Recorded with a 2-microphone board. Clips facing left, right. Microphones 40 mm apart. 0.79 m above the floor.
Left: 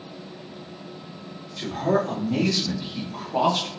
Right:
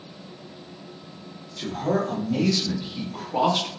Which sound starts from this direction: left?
A man speaking, at 1.6 s.